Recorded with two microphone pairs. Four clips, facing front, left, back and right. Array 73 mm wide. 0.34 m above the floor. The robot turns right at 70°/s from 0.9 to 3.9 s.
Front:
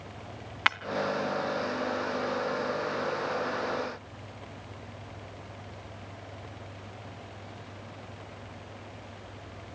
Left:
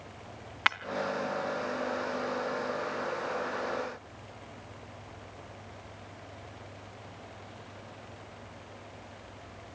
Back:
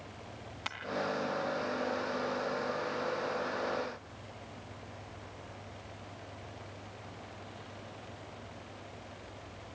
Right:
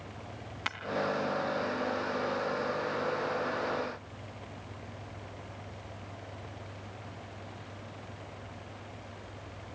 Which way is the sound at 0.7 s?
35° left.